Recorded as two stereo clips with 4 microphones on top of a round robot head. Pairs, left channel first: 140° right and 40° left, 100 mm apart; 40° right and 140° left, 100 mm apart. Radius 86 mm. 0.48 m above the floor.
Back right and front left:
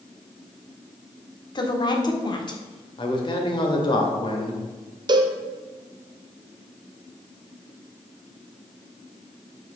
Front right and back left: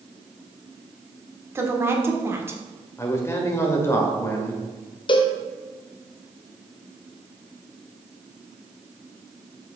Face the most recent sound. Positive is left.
turn(degrees=-5)